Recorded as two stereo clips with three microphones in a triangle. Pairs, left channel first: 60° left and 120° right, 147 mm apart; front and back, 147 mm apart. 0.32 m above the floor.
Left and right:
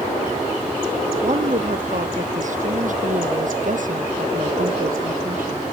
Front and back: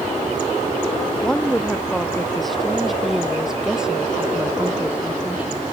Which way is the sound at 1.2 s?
85° right.